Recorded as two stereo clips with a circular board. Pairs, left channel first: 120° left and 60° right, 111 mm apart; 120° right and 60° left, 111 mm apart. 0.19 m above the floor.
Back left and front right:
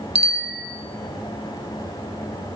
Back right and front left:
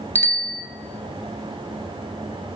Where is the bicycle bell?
50° right, 2 m.